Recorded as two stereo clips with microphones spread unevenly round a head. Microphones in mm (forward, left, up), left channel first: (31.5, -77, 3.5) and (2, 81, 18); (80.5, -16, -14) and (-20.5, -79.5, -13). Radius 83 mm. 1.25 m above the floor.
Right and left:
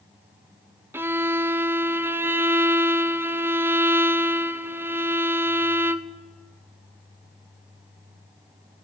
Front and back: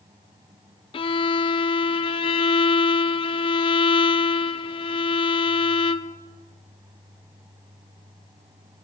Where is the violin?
25° left, 0.6 m.